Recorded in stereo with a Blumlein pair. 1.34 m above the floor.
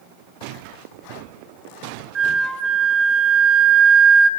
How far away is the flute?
About 1.1 m.